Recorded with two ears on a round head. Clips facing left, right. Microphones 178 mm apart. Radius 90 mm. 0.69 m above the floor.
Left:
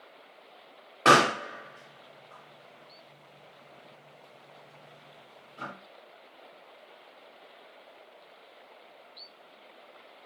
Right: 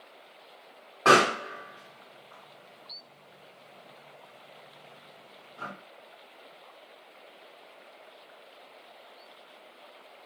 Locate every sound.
1.1 s a pop: 35° left (ahead or behind), 1.6 m